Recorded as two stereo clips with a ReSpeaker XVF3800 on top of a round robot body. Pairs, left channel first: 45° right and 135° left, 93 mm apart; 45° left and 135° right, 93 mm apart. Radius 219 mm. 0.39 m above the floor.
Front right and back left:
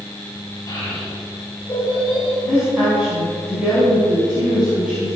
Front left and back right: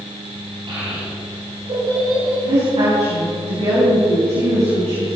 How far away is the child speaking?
About 4 m.